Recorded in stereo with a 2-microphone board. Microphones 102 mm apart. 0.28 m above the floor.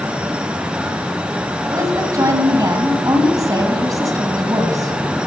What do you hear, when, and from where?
1.7 s a woman speaking: 35° right (ahead or behind), 1.9 m